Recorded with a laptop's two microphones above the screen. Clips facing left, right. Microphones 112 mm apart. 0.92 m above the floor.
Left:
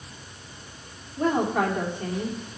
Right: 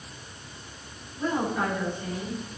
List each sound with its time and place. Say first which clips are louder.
1.2 s a woman speaking: left 4 dB; 70° left (ahead or behind), 3 m; by 2.4 s 55° left (ahead or behind), 3 m